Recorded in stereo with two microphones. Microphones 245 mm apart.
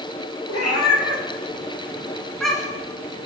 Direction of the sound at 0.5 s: 85° left.